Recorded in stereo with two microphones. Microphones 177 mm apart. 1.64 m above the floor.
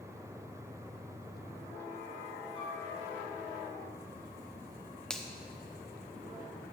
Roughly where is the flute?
Left.